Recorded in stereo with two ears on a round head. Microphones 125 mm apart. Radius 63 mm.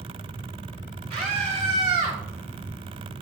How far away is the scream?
About 2.5 m.